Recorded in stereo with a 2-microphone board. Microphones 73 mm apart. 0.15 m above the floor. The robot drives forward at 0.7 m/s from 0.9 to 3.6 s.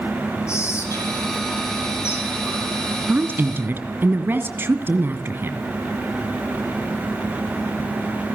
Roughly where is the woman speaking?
Right.